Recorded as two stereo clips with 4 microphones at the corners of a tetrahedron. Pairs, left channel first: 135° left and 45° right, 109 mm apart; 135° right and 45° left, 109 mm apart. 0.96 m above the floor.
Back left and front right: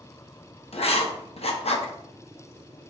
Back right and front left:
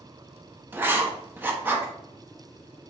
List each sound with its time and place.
0.7 s writing: 115° left, 0.5 m